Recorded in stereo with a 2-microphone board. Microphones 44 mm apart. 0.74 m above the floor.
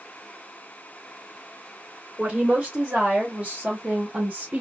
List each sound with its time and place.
2.2 s a woman speaking: 30° right (ahead or behind), 1.9 m